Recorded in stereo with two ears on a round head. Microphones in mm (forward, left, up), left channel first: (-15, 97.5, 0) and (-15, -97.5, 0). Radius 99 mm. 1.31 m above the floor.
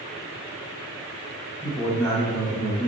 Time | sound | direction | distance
1.6 | a man speaking | 15° left (ahead or behind) | 1.8 m